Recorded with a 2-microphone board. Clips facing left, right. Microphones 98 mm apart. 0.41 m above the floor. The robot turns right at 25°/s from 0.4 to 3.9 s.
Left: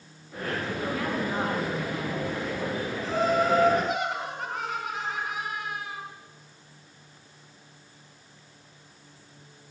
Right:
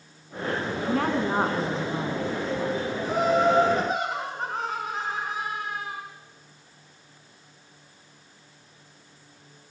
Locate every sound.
0.8 s a woman speaking: 55° right, 4.5 m; by 2.3 s 20° right, 4.5 m
3.0 s laughter: 15° right (ahead or behind), 4.5 m; by 6.0 s 35° right (ahead or behind), 4.5 m